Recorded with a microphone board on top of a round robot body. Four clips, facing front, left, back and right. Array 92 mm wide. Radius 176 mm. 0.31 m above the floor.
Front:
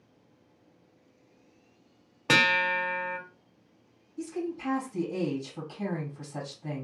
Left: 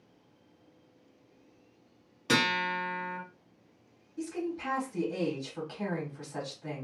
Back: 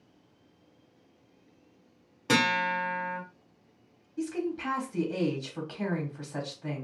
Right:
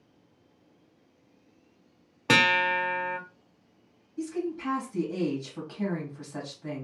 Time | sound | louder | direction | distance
2.3 | a guitar | right 5 dB, front 1 dB | 60° right | 1.4 m
4.2 | a woman speaking | right 3 dB, back 2 dB | 175° left | 1.6 m